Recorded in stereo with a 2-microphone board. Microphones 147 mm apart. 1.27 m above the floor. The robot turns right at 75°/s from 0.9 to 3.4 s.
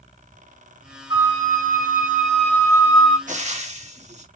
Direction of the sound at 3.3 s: 60° right (ahead or behind).